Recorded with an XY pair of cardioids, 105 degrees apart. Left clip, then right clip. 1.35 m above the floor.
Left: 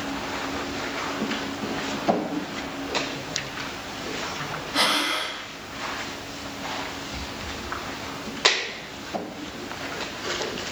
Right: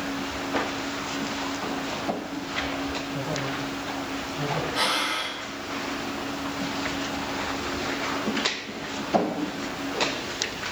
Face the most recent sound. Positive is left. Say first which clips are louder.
# left 4 dB
turn(degrees=50)